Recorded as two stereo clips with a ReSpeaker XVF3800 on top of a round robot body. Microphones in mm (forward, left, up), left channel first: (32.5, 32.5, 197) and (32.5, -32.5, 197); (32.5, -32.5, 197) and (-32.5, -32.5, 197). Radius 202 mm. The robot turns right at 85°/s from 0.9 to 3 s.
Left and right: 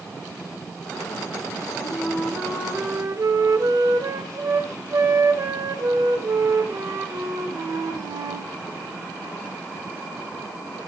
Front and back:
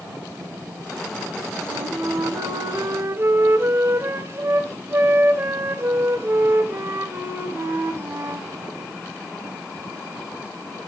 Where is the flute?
120° left, 2 m; by 8.5 s 125° right, 2 m.